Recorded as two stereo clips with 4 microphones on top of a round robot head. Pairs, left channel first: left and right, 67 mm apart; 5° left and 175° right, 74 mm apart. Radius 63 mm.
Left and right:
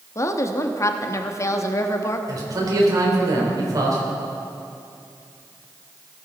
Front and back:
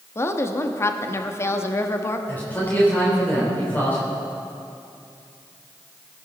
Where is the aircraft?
I don't hear an aircraft.